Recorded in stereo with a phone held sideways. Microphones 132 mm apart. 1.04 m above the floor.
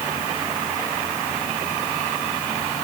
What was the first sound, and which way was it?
Only background noise.